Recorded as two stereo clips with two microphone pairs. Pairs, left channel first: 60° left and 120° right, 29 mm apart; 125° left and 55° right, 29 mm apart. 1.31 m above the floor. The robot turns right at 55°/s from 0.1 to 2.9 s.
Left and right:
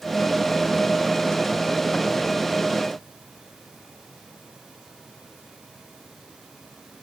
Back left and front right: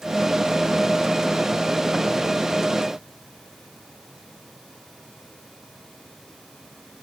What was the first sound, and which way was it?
Only background noise.